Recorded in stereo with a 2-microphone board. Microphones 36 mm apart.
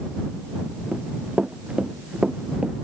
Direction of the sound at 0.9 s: 40° right (ahead or behind).